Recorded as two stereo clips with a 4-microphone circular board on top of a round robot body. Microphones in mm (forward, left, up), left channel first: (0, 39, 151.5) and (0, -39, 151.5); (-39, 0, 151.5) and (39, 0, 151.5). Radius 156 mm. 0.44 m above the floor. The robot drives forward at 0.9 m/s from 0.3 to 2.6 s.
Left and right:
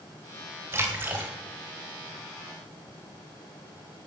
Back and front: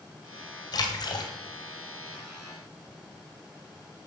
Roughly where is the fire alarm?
No fire alarm in this recording.